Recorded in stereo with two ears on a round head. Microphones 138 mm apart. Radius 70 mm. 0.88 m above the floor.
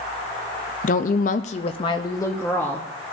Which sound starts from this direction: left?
A woman speaking, at 0.8 s.